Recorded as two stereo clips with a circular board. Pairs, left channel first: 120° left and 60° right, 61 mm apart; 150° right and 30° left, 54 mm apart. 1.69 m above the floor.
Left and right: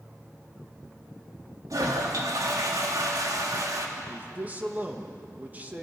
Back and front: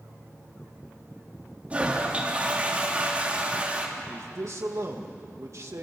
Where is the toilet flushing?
35° right, 3 m.